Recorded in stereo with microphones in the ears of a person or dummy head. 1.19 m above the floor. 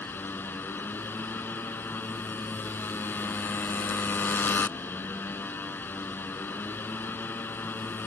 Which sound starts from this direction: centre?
A motorcycle, at 0.0 s.